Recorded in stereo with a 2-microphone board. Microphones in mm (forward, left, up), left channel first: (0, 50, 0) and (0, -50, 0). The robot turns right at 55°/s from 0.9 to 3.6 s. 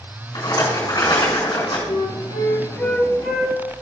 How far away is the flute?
About 0.8 m.